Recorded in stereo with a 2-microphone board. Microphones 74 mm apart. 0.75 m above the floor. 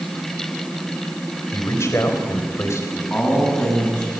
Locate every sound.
1.5 s a man speaking: 40° left (ahead or behind), 4 m
3.1 s a man speaking: 15° left (ahead or behind), 6 m